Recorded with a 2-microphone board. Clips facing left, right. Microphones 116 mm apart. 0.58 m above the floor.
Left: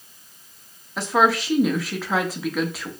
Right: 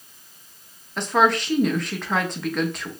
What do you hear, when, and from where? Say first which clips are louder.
1.0 s a woman speaking: even; 5° left (ahead or behind), 0.7 m